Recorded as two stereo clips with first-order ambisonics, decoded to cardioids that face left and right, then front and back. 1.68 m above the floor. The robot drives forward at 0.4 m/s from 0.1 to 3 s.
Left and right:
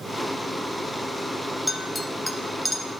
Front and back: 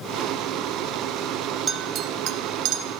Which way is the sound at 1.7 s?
175° left.